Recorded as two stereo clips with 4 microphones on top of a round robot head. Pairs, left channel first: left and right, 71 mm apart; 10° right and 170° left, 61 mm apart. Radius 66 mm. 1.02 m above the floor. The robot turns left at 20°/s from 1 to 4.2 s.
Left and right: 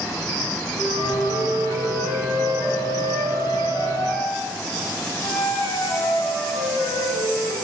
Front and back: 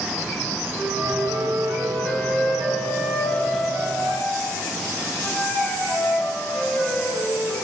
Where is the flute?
105° left, 4 m; by 7.5 s 40° left, 4 m.